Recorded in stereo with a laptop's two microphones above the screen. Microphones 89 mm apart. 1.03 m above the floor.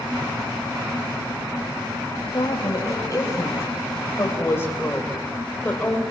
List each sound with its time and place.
2.3 s a woman speaking: 40° left (ahead or behind), 5 m; by 6.0 s 15° left (ahead or behind), 4 m